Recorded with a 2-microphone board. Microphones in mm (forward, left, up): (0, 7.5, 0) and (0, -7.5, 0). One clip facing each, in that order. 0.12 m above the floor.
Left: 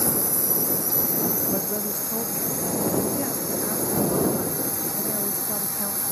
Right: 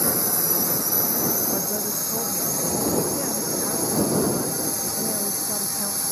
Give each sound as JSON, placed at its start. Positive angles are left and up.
{"t": 0.0, "sound": "a drone", "side_deg": -20}
{"t": 1.5, "sound": "a woman speaking", "side_deg": -5}